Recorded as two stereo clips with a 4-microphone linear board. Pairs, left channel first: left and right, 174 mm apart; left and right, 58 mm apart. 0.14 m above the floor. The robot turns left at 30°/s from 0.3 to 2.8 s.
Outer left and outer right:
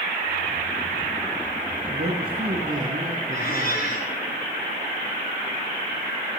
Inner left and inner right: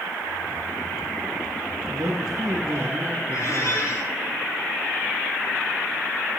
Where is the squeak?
60° left (ahead or behind), 4.5 m.